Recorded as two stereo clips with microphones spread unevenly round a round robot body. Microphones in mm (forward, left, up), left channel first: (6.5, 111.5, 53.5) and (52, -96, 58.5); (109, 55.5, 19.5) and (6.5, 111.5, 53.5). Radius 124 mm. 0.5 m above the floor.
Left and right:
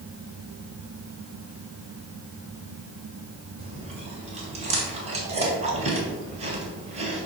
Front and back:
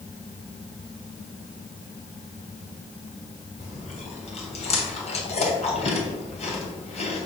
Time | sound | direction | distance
3.6 | chewing | 20° right | 2.5 m